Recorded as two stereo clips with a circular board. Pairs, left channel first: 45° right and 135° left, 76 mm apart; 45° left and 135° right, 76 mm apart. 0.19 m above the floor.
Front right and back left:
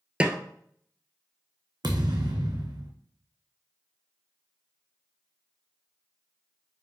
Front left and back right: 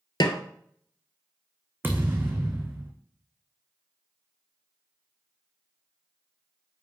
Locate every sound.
0.2 s a snare drum: 60° left, 0.9 m
1.8 s a thud: 160° left, 1.5 m